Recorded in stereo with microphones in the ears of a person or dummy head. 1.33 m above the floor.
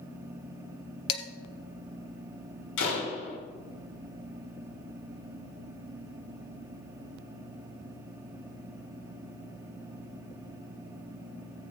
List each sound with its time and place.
1.1 s dishes clattering: 30° left (ahead or behind), 1.4 m
2.8 s a door slam: 80° left, 3 m